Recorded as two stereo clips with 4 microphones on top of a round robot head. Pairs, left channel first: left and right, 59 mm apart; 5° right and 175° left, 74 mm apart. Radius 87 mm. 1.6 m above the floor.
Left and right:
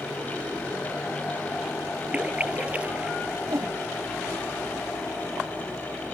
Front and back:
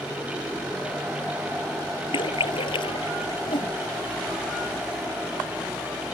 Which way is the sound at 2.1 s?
20° right.